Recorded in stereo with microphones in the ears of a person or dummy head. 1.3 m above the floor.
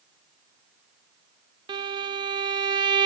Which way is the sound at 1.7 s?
20° right (ahead or behind).